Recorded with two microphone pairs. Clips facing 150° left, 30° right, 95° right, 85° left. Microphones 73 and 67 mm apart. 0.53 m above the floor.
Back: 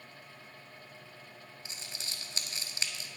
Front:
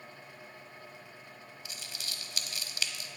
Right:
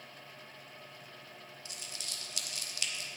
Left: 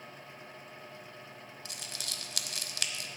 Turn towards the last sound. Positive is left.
turn(degrees=95)